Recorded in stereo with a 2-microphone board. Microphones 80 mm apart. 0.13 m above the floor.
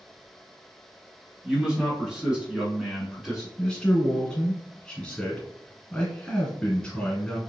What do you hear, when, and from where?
1.4 s a man speaking: 10° right (ahead or behind), 1.3 m; by 3.5 s 5° right (ahead or behind), 1.2 m
3.6 s a man speaking: 10° left (ahead or behind), 1.9 m